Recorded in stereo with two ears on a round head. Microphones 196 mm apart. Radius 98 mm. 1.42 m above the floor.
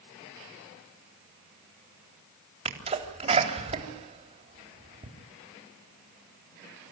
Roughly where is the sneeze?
Right.